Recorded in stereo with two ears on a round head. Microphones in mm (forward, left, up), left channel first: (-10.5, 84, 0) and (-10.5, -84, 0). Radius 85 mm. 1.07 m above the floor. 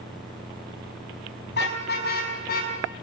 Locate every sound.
1.5 s a car horn: 65° left (ahead or behind), 5 m; by 2.7 s 55° left (ahead or behind), 6.5 m